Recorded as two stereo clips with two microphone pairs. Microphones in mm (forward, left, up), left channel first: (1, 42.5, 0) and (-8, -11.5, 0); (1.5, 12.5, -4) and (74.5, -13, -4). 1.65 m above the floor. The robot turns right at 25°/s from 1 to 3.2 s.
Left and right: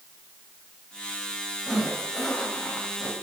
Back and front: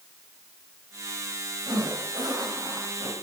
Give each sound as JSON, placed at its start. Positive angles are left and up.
{"t": 1.7, "sound": "a zipper", "azimuth_deg": -15, "distance_m": 3.5}